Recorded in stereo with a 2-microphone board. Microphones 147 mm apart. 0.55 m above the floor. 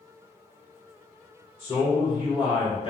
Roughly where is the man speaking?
Left.